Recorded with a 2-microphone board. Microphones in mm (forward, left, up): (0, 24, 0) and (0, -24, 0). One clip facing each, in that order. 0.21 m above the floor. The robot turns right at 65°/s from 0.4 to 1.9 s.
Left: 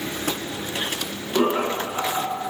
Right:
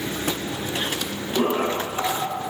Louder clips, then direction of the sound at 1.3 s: Left 1 dB; 35° left (ahead or behind).